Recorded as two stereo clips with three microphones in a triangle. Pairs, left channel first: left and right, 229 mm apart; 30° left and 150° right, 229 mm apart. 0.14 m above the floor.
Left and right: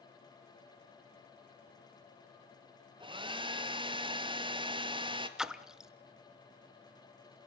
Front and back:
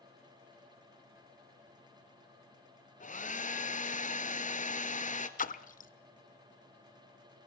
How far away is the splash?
About 0.7 m.